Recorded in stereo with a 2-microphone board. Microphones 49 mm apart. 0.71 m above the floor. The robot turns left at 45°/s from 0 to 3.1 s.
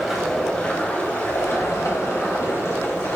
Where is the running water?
170° right, 3 m; by 3.2 s 50° left, 3 m.